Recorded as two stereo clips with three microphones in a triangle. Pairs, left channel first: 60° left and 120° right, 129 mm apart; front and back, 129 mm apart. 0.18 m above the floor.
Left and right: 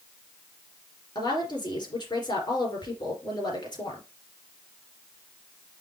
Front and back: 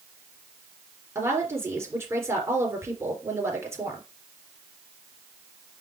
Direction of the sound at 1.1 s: 110° left.